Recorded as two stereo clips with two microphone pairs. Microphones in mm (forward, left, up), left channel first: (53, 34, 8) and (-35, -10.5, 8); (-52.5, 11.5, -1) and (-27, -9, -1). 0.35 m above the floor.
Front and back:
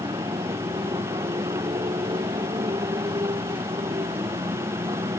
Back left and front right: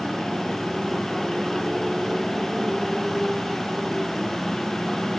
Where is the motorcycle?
125° right.